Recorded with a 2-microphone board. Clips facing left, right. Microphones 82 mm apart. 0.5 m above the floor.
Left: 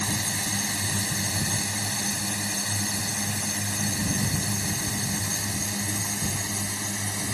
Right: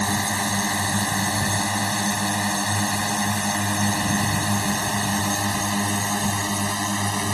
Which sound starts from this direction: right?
A drone, at 0.0 s.